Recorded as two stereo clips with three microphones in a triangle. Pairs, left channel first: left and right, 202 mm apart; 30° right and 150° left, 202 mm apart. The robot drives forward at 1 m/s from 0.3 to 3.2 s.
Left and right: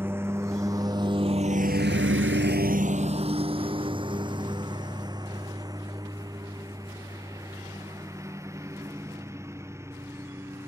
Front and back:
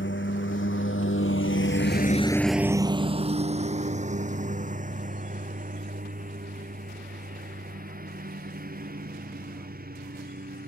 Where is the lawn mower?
10° right; by 10.7 s 165° right.